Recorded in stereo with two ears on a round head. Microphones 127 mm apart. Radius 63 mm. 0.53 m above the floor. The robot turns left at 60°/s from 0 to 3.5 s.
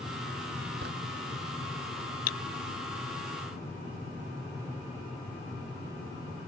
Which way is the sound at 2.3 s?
65° left (ahead or behind).